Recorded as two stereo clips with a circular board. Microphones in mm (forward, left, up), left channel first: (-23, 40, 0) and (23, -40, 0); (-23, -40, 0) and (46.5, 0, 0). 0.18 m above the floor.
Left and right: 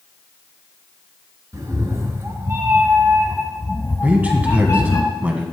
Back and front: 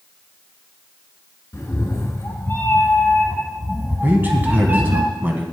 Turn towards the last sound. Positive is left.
turn(degrees=-5)